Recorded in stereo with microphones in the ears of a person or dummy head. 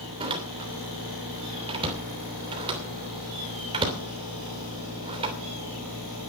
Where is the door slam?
25° right (ahead or behind), 3 m.